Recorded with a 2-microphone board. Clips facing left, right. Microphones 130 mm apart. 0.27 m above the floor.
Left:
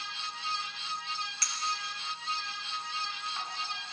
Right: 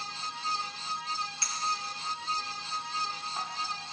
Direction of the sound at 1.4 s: 25° right (ahead or behind).